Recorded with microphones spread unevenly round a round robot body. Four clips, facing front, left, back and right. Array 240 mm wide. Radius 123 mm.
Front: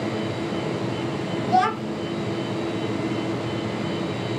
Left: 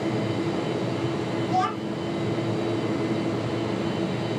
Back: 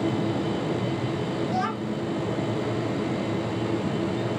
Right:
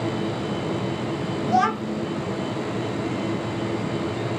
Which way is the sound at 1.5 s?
35° right.